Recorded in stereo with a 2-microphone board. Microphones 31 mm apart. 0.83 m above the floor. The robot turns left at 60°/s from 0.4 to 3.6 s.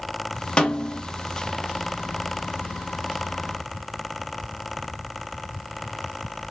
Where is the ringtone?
I don't hear a ringtone.